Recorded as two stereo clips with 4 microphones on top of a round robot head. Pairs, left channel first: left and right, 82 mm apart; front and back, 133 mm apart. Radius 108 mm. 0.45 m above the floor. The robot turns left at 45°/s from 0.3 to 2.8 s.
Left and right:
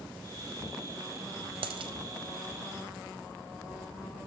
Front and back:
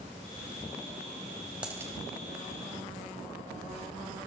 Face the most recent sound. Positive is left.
turn(degrees=-150)